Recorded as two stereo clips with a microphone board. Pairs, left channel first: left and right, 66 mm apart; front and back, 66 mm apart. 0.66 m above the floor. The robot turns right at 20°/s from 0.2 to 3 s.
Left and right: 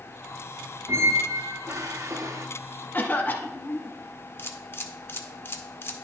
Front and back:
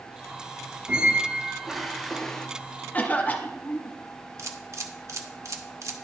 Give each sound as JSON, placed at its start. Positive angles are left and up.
{"t": 0.9, "sound": "a squeak", "azimuth_deg": -110, "distance_m": 0.6}
{"t": 2.9, "sound": "a cough", "azimuth_deg": 45, "distance_m": 0.9}
{"t": 4.4, "sound": "a camera shutter", "azimuth_deg": 140, "distance_m": 0.7}